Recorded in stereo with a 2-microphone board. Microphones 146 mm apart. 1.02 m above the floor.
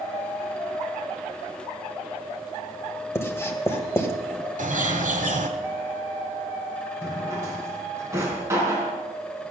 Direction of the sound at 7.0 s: 20° right (ahead or behind).